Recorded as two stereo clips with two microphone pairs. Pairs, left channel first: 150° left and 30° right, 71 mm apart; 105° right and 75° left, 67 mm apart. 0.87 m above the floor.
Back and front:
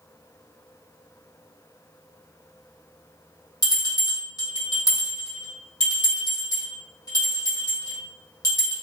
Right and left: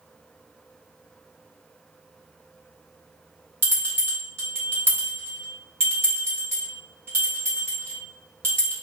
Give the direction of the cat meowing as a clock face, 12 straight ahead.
No cat meowing in this recording.